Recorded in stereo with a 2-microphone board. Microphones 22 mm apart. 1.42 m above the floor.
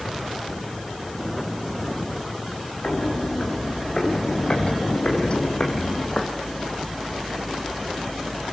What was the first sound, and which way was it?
Footsteps, 65° left (ahead or behind).